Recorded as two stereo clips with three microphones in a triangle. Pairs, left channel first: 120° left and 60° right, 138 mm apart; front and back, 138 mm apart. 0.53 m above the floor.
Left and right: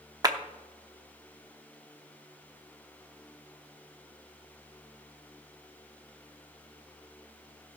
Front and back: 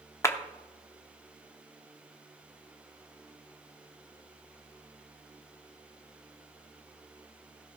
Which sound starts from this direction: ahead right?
A clap, at 0.2 s.